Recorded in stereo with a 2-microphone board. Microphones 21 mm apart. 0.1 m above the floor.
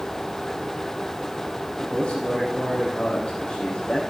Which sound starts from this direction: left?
A man speaking, at 1.8 s.